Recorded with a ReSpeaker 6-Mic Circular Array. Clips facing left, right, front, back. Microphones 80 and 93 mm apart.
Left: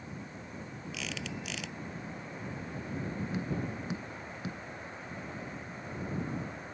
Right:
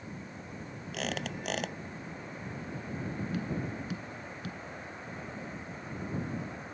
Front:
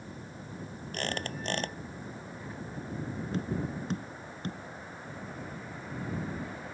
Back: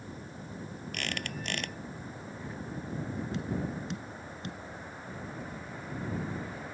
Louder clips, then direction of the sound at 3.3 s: Even, front 2 dB; 30° left.